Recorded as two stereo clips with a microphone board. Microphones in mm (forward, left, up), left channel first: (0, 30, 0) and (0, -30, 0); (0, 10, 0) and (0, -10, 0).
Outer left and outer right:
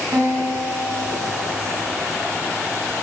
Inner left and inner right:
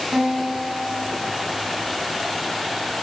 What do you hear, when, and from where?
0.1 s a guitar: 55° right (ahead or behind), 2.5 m